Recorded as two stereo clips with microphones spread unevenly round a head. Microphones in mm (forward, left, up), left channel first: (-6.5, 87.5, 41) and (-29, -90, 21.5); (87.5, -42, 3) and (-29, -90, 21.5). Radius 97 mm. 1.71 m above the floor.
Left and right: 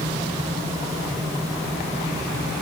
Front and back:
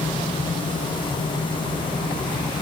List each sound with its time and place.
Only background noise.